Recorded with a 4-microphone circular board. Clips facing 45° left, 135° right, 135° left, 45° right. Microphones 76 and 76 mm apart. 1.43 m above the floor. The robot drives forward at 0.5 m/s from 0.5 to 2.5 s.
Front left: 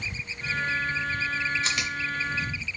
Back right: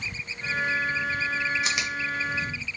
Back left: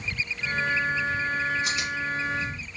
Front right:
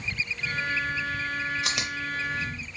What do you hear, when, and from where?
1.6 s chewing: 55° right, 0.8 m; by 2.7 s 90° right, 0.6 m